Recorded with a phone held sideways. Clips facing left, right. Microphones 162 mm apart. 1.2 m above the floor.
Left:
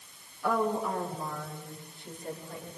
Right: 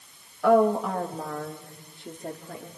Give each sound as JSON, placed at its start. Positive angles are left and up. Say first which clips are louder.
{"t": 0.4, "sound": "a woman speaking", "louder": "right 9 dB", "side_deg": -70, "distance_m": 2.0}